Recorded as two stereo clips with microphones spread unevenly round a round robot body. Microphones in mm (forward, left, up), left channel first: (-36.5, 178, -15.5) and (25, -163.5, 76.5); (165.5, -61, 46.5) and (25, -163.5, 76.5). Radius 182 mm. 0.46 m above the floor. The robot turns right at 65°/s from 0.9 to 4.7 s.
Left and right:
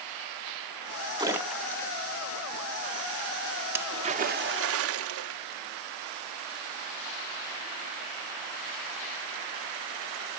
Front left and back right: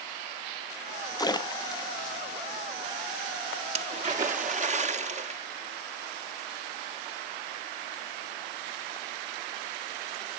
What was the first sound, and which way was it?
A splash, 10° left.